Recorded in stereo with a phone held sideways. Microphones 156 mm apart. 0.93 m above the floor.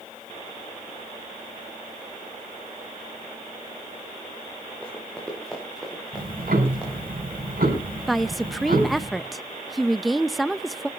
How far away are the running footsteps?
About 7 m.